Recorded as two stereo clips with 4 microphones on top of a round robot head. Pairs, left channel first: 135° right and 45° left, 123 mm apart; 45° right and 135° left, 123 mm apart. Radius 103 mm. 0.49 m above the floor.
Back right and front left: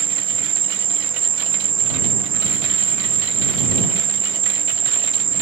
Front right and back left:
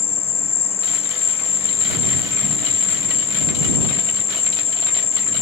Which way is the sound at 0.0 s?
5° right.